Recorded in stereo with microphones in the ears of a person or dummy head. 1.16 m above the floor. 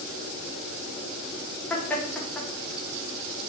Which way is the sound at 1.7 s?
10° left (ahead or behind).